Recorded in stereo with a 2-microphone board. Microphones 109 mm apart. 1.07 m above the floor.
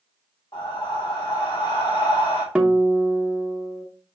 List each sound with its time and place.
0.5 s breathing: 45° left (ahead or behind), 2.5 m
2.5 s a guitar: 10° right (ahead or behind), 1.0 m